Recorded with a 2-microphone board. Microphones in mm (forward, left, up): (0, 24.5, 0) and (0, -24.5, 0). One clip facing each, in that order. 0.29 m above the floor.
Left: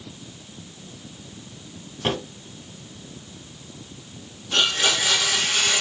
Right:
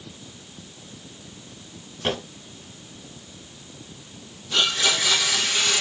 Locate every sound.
2.0 s a drawer: 15° left (ahead or behind), 4 m
4.5 s a blender: 45° left (ahead or behind), 3 m